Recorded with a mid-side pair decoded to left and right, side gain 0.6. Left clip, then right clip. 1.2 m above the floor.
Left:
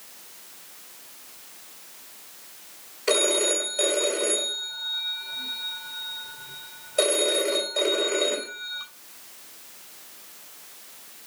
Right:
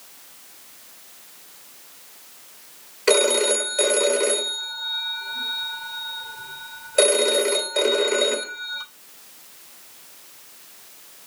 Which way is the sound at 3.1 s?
50° right.